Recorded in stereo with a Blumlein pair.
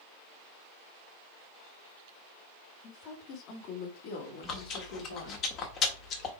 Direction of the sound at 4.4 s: 30° left.